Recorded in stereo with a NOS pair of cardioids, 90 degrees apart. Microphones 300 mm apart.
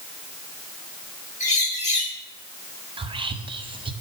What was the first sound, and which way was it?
A bird, 25° left.